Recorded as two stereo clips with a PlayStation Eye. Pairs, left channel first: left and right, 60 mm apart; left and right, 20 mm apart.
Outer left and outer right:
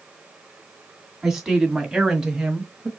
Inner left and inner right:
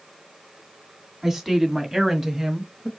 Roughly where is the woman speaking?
Centre.